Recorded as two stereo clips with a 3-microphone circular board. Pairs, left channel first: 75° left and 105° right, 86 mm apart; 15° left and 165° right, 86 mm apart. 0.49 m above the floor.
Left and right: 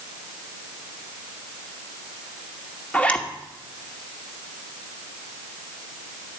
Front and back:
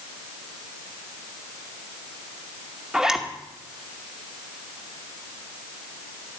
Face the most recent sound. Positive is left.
turn(degrees=125)